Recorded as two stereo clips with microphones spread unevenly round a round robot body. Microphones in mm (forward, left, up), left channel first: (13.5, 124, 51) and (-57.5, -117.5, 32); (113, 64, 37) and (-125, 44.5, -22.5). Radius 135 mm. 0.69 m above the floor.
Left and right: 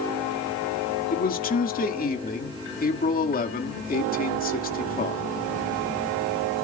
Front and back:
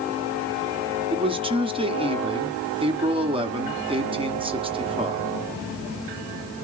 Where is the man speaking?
130° left, 2 m.